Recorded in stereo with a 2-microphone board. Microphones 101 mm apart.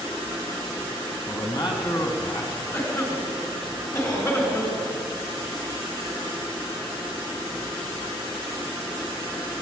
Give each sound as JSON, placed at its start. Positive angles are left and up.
{"t": 1.3, "sound": "a man speaking", "side_deg": 40, "distance_m": 1.5}
{"t": 2.7, "sound": "a cough", "side_deg": 30, "distance_m": 2.0}